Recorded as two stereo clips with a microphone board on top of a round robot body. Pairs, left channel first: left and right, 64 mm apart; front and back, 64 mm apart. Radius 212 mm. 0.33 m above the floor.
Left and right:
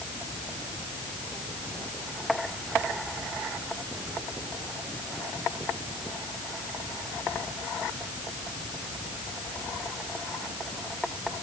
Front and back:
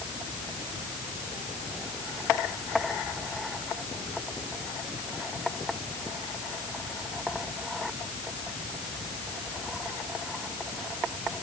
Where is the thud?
I don't hear a thud.